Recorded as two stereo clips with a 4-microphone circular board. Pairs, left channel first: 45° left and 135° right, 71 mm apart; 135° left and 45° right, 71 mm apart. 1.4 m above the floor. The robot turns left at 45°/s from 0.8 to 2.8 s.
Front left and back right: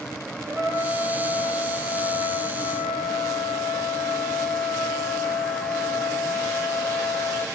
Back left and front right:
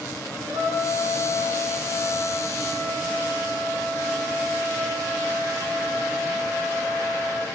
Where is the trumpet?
140° right, 1.8 m; by 7.5 s 130° left, 1.8 m.